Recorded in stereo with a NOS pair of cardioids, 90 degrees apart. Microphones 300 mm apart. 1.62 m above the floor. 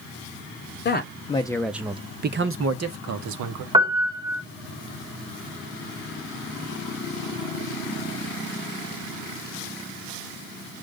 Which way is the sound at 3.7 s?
15° right.